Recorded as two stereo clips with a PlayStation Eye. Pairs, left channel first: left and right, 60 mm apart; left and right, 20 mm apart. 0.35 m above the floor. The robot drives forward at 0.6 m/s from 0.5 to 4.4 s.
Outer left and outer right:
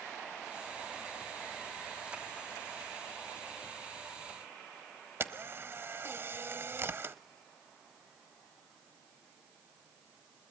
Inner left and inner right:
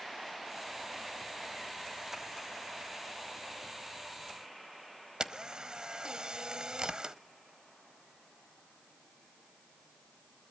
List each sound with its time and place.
5.2 s a camera shutter: 40° right (ahead or behind), 1.0 m